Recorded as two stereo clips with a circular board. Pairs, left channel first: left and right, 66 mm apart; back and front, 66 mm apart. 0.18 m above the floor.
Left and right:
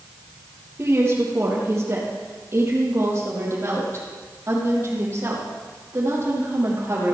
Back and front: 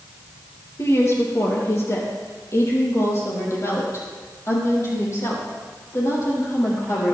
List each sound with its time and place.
0.8 s a woman speaking: 135° right, 4 m